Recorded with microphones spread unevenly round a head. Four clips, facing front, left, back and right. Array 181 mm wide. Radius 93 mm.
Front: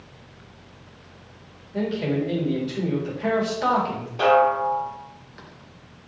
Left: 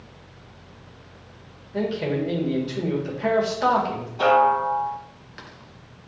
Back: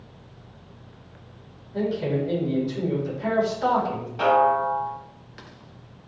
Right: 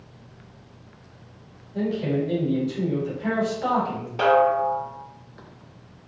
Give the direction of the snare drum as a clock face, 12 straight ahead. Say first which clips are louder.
Left 1 dB, front 1 dB; 3 o'clock.